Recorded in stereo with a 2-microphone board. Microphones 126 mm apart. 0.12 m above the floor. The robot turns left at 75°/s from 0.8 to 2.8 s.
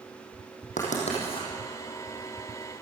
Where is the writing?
75° left (ahead or behind), 6.5 m; by 1.5 s 40° left (ahead or behind), 6.5 m.